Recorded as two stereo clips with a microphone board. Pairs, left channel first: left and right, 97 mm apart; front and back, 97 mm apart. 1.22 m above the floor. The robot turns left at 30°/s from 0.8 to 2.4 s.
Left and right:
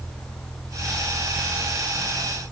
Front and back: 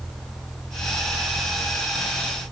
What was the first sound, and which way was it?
Only background noise.